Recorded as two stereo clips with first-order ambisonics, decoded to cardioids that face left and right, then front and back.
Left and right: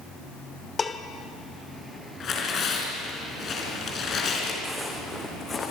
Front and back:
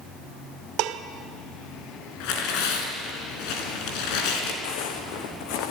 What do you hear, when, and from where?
0.8 s dishes clattering: 165° left, 1.0 m
2.2 s tearing paper: 25° left, 4 m
4.6 s footsteps: straight ahead, 2 m; by 5.7 s 20° left, 2.5 m